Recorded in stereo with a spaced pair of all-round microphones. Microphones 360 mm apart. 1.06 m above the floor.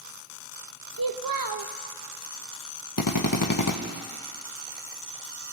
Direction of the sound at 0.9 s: 65° right (ahead or behind).